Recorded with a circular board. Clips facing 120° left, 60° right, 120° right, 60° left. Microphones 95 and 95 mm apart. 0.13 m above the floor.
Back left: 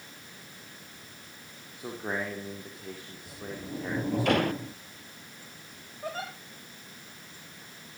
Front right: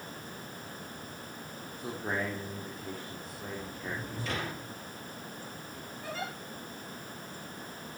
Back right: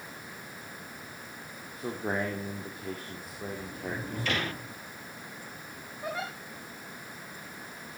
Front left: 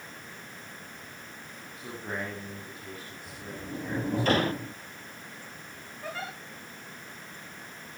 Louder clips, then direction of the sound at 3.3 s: Back left 5 dB, even; 105° left.